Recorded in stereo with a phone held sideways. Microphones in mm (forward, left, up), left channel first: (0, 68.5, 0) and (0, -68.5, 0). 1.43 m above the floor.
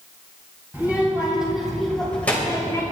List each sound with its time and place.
0.7 s a child speaking: 15° right (ahead or behind), 5.5 m; by 2.8 s 20° left (ahead or behind), 4 m